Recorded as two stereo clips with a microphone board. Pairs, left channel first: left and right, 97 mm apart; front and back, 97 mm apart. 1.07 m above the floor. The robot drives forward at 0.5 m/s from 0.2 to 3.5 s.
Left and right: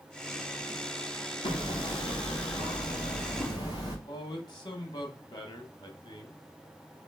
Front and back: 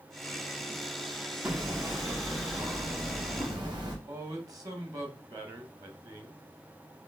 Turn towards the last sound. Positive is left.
turn(degrees=130)